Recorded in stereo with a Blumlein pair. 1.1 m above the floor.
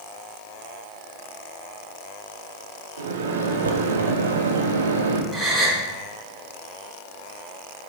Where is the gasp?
5° right, 2.5 m.